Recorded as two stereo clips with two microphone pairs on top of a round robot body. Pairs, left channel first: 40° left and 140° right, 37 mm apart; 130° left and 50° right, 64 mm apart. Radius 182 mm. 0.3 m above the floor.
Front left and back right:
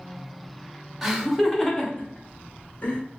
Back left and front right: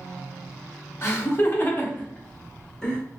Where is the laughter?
135° left, 1.2 m; by 3.0 s 45° left, 1.7 m.